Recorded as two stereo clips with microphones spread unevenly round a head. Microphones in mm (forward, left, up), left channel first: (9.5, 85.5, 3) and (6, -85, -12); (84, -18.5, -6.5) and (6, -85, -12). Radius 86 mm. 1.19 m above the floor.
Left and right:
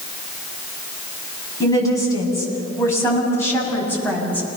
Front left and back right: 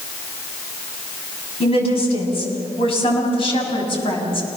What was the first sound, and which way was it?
A woman speaking, 20° left.